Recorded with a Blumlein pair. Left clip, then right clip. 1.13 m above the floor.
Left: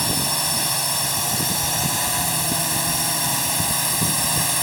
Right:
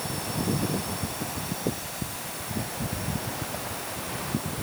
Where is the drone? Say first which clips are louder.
Left 9 dB; 35° left; by 4.6 s 40° left.